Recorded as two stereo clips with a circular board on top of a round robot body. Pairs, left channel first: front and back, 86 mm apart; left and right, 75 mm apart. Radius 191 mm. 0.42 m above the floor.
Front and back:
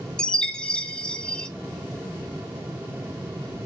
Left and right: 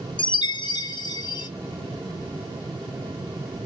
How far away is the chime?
About 0.7 m.